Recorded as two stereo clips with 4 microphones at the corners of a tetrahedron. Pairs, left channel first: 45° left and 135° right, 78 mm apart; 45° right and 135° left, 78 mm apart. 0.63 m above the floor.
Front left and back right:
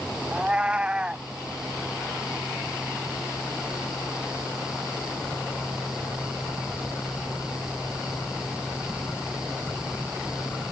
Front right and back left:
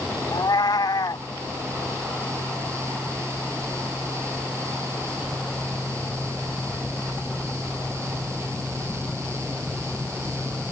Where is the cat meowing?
60° right.